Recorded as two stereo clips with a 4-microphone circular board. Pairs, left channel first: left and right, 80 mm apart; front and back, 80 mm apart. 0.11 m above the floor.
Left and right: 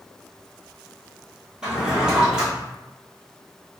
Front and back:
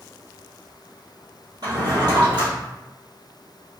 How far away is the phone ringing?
No phone ringing in this recording.